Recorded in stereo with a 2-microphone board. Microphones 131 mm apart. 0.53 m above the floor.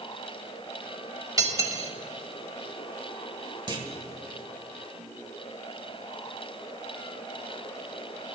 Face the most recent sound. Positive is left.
turn(degrees=-35)  # may be behind; listen again after turning